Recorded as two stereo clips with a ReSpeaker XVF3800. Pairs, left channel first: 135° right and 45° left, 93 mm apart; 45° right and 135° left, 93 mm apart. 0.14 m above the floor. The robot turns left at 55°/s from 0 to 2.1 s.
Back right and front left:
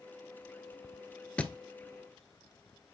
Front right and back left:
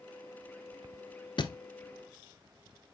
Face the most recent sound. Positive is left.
turn(degrees=-100)